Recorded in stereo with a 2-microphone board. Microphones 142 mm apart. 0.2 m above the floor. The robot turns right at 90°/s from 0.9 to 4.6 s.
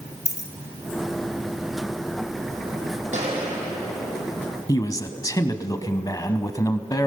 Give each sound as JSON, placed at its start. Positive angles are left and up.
{"t": 0.2, "sound": "a dropped coin", "side_deg": 20, "distance_m": 2.5}
{"t": 3.1, "sound": "a gunshot", "azimuth_deg": -55, "distance_m": 7.0}
{"t": 4.7, "sound": "a man speaking", "side_deg": 25, "distance_m": 1.1}